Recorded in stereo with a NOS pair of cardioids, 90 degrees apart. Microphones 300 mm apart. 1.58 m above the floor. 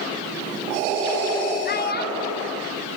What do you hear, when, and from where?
1.6 s a child speaking: 35° left, 3 m